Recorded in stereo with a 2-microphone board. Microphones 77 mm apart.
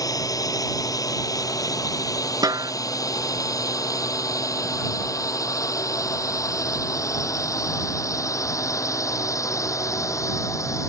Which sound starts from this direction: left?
A drone, at 0.0 s.